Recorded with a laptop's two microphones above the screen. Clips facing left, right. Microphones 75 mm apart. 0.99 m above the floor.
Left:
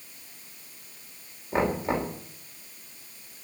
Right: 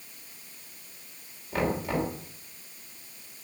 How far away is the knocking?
About 3 m.